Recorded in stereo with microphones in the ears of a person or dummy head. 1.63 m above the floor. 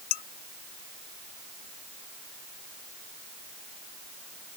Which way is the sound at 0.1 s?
60° left (ahead or behind).